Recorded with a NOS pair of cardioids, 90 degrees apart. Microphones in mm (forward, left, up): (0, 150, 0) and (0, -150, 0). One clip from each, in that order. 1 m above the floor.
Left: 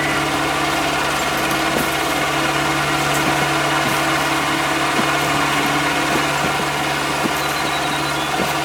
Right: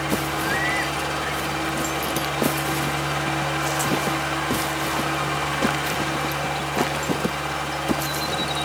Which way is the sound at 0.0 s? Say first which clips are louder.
Left 6 dB; 65° left.